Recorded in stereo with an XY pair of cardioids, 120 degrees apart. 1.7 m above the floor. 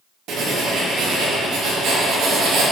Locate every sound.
0.3 s writing: 70° right, 2.5 m